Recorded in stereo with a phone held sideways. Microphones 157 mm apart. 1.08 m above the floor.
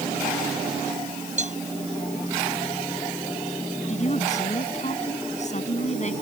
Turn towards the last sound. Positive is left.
turn(degrees=50)  # may be behind; listen again after turning